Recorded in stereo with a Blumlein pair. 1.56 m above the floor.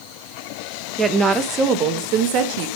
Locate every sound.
1.0 s a woman speaking: 10° right, 1.4 m; by 2.7 s 50° right, 1.6 m